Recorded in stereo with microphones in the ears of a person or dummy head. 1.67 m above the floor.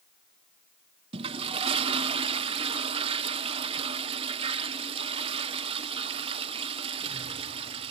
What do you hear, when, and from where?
1.1 s a toilet flushing: 25° right (ahead or behind), 0.9 m